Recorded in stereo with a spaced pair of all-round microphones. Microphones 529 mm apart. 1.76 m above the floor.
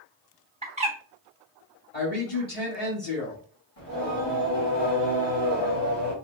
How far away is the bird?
About 1.2 m.